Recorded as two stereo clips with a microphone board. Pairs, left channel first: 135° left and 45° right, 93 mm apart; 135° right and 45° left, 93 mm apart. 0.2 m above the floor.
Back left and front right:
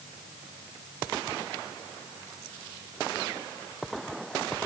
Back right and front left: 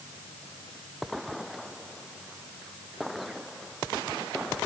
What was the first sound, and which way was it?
Only background noise.